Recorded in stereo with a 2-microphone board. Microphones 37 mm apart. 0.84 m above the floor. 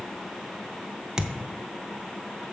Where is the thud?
15° right (ahead or behind), 0.6 m.